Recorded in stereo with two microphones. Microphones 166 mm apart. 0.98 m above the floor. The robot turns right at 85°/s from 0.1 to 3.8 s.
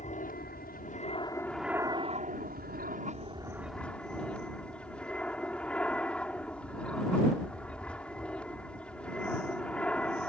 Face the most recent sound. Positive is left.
turn(degrees=5)